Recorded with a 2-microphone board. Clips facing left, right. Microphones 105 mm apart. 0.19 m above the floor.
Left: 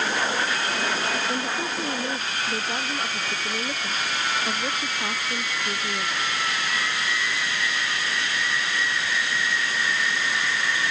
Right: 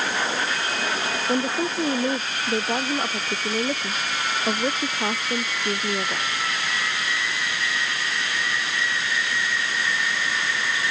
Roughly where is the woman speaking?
Right.